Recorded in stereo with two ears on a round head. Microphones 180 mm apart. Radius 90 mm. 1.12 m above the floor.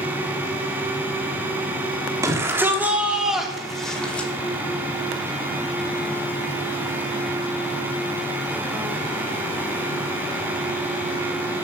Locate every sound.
2.2 s a shout: 15° right (ahead or behind), 2.5 m; by 4.3 s 5° left (ahead or behind), 3 m